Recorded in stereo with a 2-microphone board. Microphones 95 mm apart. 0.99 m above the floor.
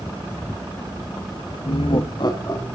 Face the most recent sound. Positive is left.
turn(degrees=35)  # may be behind; listen again after turning